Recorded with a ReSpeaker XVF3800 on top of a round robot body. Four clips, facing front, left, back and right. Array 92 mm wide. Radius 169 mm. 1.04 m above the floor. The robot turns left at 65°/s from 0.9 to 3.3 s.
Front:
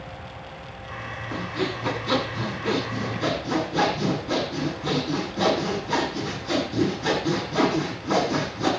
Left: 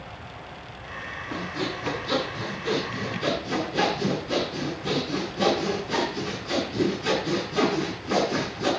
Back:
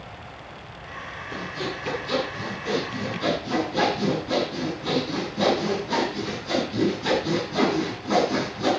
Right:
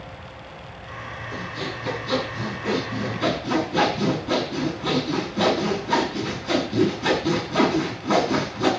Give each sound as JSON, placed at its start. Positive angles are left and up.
{"t": 1.3, "sound": "sawing", "azimuth_deg": 40, "distance_m": 8.0}